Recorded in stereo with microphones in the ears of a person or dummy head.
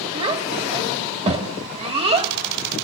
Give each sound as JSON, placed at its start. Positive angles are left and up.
{"t": 0.1, "sound": "a child speaking", "side_deg": -25, "distance_m": 2.0}